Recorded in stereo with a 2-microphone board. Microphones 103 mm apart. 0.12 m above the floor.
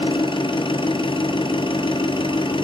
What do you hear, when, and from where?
0.0 s an engine running: 55° left (ahead or behind), 1.0 m